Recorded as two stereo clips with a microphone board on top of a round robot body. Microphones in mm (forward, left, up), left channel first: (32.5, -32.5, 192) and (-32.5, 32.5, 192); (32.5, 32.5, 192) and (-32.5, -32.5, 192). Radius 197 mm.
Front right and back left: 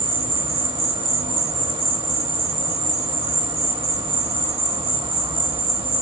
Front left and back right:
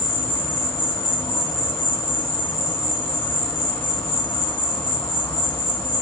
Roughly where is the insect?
Left.